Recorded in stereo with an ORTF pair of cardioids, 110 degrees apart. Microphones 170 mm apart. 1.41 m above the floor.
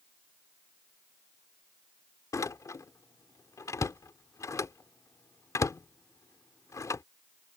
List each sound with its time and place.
2.3 s a door slam: 20° left